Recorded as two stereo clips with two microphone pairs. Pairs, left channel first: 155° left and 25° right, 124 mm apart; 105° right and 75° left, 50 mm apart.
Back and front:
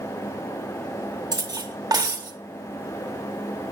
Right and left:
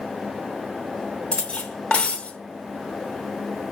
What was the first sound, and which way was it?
Cutlery clinking, 60° right.